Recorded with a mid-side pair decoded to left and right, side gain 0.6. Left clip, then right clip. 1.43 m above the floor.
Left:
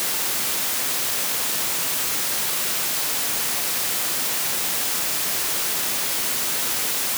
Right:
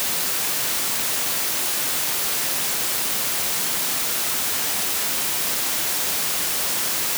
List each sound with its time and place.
Only background noise.